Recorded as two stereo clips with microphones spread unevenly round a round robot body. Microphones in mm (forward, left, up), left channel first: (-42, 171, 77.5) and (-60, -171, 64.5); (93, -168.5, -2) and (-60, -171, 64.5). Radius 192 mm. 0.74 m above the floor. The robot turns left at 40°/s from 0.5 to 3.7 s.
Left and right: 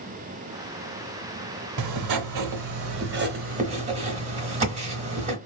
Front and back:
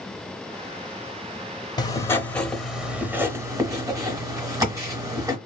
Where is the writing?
85° right, 0.6 m; by 5.4 s 160° right, 0.6 m.